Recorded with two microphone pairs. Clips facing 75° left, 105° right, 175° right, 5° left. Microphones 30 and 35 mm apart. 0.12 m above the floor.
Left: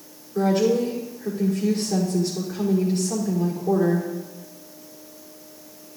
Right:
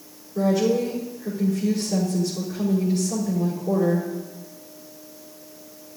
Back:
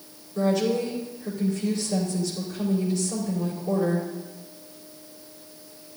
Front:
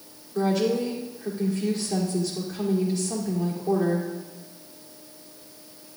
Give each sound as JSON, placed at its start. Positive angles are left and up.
{"t": 0.3, "sound": "a woman speaking", "azimuth_deg": 35, "distance_m": 5.0}